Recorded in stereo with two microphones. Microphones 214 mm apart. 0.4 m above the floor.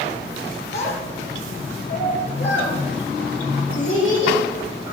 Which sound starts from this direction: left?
A child speaking, at 0.7 s.